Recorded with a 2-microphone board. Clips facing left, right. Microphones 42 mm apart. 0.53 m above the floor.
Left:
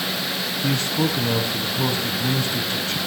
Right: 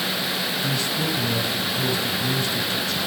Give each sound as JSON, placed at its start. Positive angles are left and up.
{"t": 0.6, "sound": "a man speaking", "side_deg": 50, "distance_m": 5.0}